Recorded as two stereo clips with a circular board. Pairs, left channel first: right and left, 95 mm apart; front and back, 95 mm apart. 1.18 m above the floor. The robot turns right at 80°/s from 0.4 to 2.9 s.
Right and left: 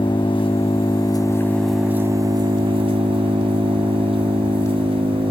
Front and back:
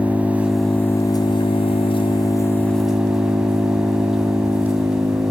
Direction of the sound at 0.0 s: 105° right.